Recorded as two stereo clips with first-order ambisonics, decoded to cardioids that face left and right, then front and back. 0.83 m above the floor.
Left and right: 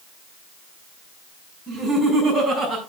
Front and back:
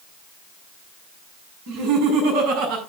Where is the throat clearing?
I don't hear throat clearing.